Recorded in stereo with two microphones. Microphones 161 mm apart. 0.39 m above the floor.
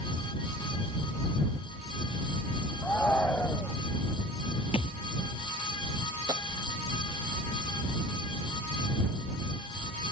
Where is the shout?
10° left (ahead or behind).